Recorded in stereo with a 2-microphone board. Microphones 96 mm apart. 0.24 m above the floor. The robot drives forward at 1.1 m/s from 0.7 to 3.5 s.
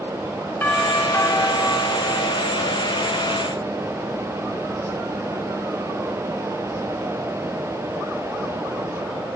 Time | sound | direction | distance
0.6 | a doorbell | 20° left (ahead or behind) | 3.5 m